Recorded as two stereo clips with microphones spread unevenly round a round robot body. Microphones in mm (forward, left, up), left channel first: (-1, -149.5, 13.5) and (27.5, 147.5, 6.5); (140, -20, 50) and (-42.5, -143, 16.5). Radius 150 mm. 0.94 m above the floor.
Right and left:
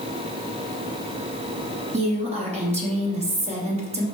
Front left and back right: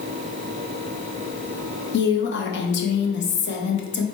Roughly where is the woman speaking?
Ahead left.